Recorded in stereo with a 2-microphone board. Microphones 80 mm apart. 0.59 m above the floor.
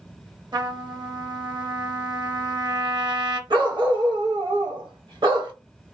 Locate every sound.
0.5 s a trumpet: 65° right (ahead or behind), 0.6 m
3.5 s a dog barking: 80° right, 0.8 m